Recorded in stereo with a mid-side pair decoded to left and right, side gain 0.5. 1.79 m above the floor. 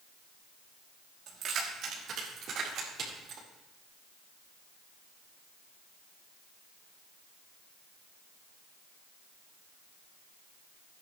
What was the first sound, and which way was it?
Keys jangling, 65° right.